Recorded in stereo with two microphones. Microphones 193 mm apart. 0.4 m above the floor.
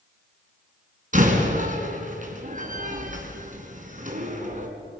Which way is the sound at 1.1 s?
40° right (ahead or behind).